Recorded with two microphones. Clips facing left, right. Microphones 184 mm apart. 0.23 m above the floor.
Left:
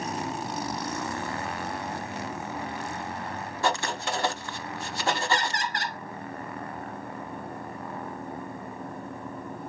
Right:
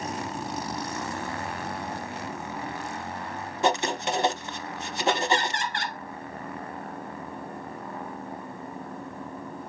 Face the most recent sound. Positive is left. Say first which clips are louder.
# right 3 dB
turn(degrees=40)  # may be behind; listen again after turning